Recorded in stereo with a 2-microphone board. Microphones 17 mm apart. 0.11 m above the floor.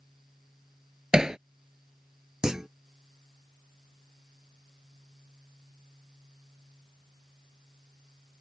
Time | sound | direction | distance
1.1 | hammering | 45° right (ahead or behind) | ?
2.4 | a clunk | 30° right (ahead or behind) | ?